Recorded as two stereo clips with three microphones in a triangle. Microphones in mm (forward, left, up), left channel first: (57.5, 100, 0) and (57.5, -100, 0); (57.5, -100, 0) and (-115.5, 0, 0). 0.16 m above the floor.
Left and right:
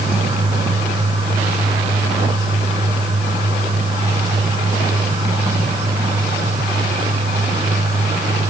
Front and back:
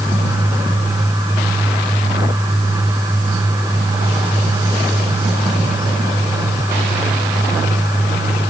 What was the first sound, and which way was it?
Only background noise.